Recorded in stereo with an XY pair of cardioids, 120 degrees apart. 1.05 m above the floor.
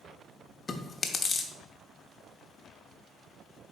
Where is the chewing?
35° left, 0.9 m.